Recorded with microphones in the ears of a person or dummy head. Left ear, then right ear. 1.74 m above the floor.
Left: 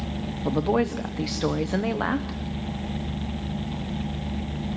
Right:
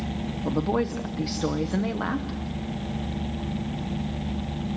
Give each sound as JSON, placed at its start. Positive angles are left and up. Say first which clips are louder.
{"t": 0.5, "sound": "a woman speaking", "louder": "left 2 dB", "side_deg": 20, "distance_m": 0.8}